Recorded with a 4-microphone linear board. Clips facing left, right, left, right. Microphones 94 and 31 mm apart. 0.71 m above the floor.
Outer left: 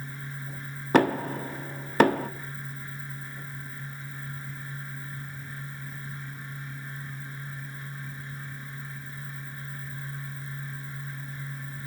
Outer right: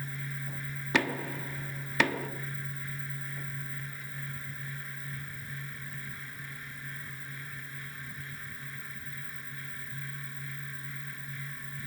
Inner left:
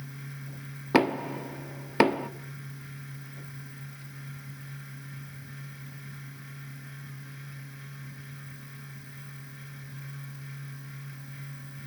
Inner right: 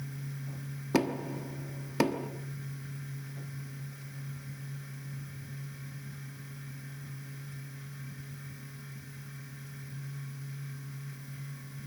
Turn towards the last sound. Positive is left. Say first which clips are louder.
# outer left 9 dB, inner left 6 dB
turn(degrees=40)  # may be behind; listen again after turning